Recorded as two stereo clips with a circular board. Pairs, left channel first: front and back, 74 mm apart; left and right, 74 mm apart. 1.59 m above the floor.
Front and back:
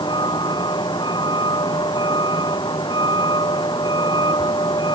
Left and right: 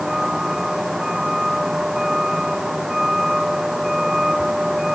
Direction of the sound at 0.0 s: 5° right.